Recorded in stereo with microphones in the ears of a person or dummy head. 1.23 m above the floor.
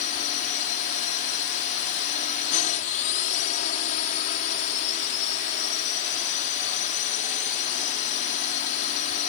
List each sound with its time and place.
0.0 s a drone: 45° left (ahead or behind)